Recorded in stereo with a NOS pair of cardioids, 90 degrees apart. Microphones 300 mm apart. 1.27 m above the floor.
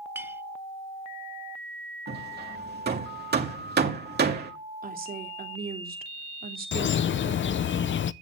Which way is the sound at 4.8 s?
25° right.